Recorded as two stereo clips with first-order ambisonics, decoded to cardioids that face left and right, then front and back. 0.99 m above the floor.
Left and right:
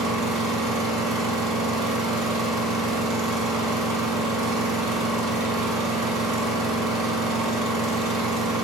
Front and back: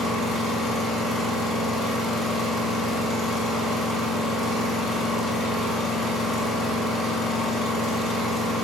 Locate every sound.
0.0 s an engine running: 65° right, 5 m